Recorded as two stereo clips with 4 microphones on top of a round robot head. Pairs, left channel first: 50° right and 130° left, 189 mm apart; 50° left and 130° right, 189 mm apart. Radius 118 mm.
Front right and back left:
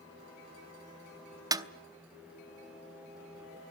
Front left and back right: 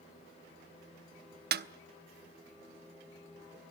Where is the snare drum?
160° right, 0.8 m.